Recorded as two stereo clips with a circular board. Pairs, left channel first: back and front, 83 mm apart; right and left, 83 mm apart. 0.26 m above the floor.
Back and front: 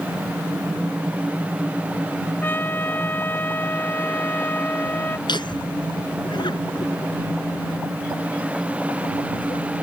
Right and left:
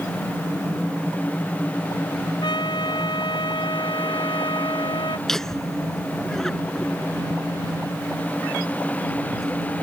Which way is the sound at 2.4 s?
115° right.